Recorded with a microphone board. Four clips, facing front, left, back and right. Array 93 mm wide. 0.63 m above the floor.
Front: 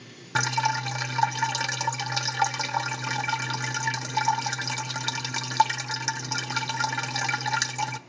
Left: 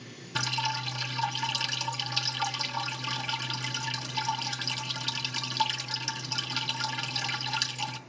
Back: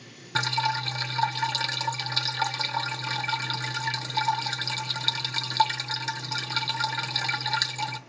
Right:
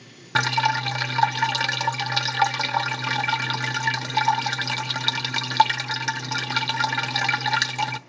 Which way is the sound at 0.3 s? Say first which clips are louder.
Right 10 dB, front 2 dB; 75° right.